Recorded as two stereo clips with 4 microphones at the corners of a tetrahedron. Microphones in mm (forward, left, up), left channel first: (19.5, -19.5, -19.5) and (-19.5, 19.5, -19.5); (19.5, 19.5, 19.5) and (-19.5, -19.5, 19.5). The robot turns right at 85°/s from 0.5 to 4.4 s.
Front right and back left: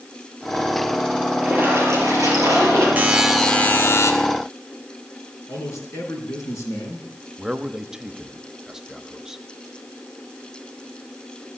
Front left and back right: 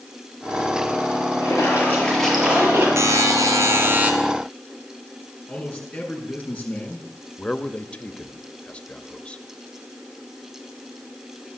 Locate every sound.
1.4 s a splash: 60° left, 6 m; by 2.9 s 175° right, 6 m
3.0 s a buzzer: 165° right, 2 m; by 4.1 s 70° right, 2 m
5.5 s a man speaking: 20° right, 5 m
7.4 s a man speaking: 70° left, 0.9 m